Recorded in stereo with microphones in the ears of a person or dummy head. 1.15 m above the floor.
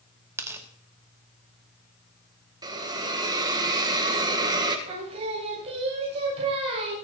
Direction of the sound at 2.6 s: 20° right (ahead or behind).